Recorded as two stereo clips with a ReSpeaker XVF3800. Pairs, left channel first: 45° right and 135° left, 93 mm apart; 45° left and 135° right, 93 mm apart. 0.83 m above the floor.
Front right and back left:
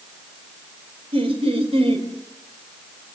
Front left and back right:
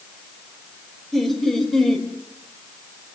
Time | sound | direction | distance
1.1 | laughter | 135° left | 5 m